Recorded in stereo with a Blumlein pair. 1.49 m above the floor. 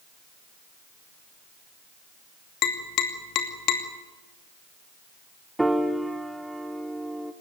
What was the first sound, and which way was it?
Tapping, 40° left.